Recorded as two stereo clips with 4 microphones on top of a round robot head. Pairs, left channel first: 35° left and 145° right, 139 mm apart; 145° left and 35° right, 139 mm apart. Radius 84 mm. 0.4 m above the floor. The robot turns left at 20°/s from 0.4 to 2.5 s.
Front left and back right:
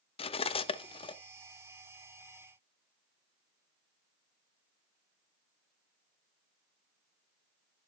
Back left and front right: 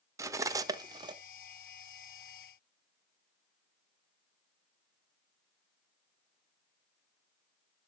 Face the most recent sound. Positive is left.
turn(degrees=-20)